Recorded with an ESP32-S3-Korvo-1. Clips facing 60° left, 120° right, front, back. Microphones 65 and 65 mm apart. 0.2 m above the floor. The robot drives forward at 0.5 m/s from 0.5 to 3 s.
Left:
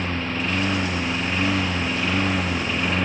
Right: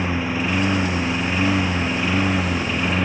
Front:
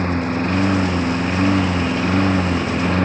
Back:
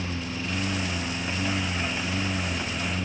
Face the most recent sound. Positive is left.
turn(degrees=-35)